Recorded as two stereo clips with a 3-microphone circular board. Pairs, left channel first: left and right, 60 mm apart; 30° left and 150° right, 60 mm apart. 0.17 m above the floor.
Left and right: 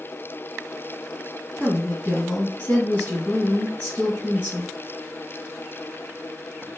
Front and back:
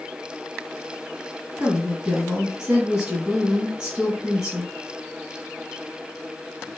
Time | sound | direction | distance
1.6 | a woman speaking | 145° left | 1.9 m